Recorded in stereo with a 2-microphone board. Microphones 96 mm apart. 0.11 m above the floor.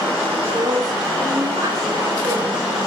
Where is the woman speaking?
40° right (ahead or behind), 9.5 m.